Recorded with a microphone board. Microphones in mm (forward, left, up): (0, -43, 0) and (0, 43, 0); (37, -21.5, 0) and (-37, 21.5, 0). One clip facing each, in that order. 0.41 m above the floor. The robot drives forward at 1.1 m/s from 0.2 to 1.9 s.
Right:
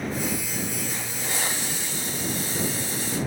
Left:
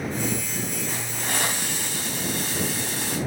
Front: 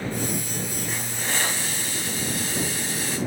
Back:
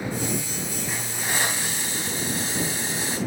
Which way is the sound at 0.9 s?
70° left.